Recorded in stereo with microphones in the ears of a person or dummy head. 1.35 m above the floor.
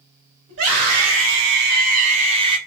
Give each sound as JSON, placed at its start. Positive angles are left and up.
{"t": 0.5, "sound": "a scream", "side_deg": -70, "distance_m": 1.0}